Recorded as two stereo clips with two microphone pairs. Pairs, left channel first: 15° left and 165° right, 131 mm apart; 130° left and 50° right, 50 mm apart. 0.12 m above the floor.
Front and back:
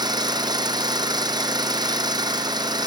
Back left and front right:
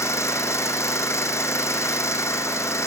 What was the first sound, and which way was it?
An engine running, 140° left.